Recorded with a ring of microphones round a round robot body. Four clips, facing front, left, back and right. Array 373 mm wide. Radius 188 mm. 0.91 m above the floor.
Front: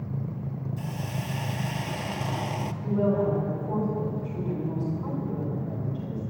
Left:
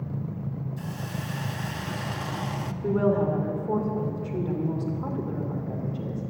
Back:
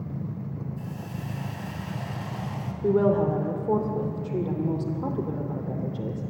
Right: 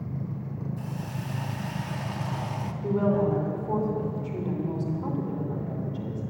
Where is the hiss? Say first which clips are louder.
Left 1 dB, front 2 dB; 30° left, 0.5 m.